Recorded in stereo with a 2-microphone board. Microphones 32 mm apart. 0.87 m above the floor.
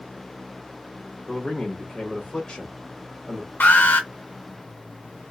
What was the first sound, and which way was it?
A man speaking, 15° left (ahead or behind).